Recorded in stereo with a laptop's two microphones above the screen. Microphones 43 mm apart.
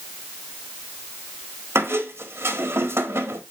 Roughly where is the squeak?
Right.